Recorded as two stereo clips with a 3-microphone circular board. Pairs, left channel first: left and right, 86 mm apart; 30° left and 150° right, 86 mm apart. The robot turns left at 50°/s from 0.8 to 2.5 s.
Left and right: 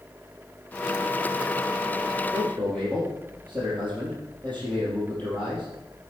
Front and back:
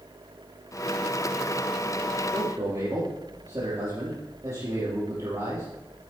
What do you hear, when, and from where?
2.3 s a man speaking: 170° left, 4.5 m; by 5.7 s 160° left, 4.5 m